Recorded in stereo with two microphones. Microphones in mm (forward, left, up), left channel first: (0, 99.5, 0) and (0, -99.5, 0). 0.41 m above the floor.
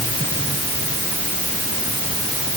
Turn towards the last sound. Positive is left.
No sound to turn to.